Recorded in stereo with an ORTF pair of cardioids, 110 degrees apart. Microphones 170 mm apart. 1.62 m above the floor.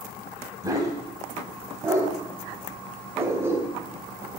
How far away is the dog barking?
About 5 m.